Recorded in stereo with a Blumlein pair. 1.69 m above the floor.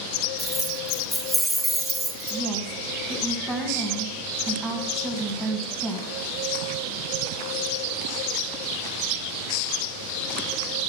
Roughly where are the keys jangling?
Ahead.